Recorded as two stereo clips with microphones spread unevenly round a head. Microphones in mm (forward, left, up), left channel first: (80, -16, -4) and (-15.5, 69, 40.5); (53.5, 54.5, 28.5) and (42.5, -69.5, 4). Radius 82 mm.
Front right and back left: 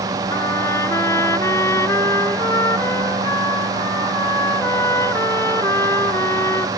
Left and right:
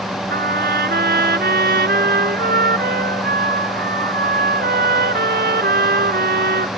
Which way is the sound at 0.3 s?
125° right.